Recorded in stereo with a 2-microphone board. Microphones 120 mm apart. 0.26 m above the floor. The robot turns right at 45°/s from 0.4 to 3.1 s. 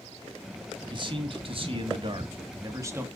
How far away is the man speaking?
About 1.7 m.